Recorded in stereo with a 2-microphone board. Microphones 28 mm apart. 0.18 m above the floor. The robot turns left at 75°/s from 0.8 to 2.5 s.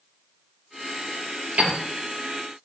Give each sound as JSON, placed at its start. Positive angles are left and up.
{"t": 1.6, "sound": "a piano", "side_deg": -55, "distance_m": 2.5}